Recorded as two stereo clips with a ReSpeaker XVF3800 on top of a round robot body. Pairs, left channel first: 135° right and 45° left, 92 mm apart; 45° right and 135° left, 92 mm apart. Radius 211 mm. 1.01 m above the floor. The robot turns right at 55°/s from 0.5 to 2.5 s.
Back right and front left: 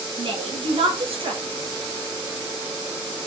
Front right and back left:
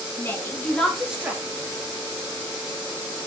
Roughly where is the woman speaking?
Ahead.